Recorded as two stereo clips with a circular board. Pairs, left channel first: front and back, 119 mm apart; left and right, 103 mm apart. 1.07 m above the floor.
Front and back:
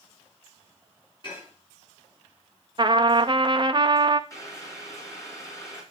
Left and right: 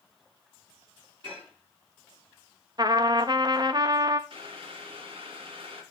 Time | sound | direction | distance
1.2 | dishes clattering | 50° right | 7 m
2.8 | a trumpet | 135° right | 0.6 m
4.3 | boiling | 60° right | 3 m